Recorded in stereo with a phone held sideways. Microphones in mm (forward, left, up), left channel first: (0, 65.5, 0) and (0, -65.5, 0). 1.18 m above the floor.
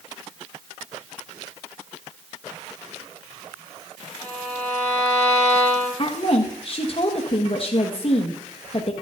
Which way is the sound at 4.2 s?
30° right (ahead or behind).